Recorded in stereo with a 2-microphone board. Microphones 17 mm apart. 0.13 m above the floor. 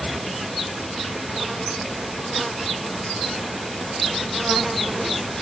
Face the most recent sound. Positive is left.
No sound to turn to.